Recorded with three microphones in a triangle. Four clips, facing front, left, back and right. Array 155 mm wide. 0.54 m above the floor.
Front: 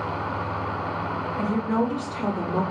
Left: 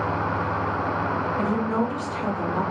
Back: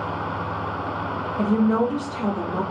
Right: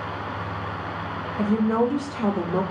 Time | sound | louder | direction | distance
1.4 | a woman speaking | right 6 dB, back 5 dB | straight behind | 0.6 m